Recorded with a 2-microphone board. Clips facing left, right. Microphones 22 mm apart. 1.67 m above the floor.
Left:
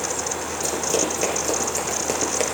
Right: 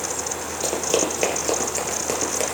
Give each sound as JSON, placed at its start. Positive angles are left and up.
{"t": 0.6, "sound": "running footsteps", "side_deg": -35, "distance_m": 2.5}